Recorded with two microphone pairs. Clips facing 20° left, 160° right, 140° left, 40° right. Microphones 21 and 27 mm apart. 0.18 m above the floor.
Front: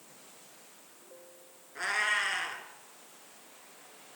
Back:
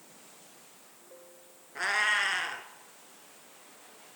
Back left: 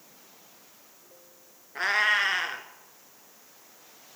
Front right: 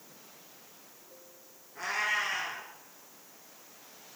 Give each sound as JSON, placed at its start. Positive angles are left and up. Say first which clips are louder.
{"t": 1.8, "sound": "a cat meowing", "louder": "back 2 dB, back left 7 dB", "azimuth_deg": 125, "distance_m": 0.5}